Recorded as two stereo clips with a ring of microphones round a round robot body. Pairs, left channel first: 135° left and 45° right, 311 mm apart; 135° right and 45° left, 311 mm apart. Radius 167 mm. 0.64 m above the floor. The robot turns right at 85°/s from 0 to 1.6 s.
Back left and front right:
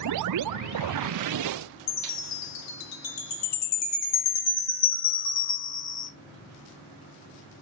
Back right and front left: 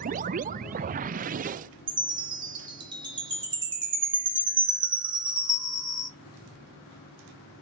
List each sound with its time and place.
1.9 s a chime: 120° left, 1.6 m